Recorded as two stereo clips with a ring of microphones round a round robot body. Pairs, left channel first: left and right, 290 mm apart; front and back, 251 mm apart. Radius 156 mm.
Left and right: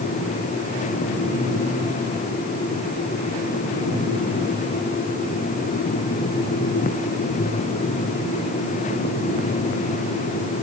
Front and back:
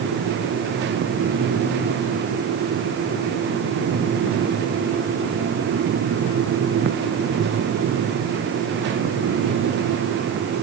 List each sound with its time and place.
Only background noise.